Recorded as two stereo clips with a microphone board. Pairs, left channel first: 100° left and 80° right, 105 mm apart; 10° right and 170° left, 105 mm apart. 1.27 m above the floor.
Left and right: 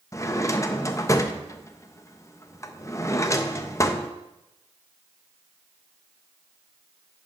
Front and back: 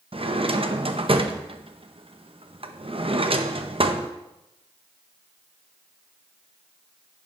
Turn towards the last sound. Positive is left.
turn(degrees=160)